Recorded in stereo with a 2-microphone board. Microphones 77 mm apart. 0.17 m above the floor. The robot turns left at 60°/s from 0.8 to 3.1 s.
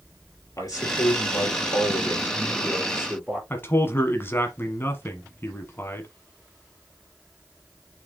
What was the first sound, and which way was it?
A man speaking, 125° left.